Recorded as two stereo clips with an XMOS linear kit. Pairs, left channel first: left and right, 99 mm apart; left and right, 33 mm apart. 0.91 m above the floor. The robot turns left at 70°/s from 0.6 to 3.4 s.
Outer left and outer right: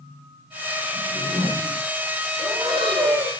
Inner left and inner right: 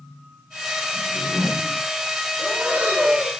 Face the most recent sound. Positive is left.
turn(degrees=-105)